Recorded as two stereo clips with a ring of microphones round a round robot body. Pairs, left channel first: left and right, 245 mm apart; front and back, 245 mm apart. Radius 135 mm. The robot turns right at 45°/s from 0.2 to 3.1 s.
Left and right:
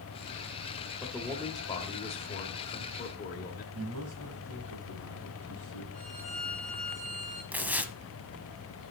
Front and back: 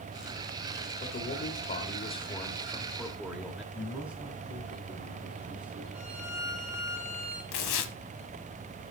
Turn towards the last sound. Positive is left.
turn(degrees=-5)